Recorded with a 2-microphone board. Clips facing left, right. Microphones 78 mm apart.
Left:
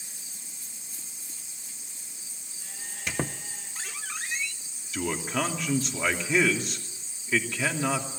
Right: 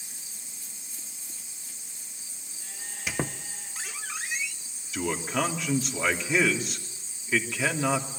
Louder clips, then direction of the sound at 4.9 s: Right 1 dB; 5° right (ahead or behind).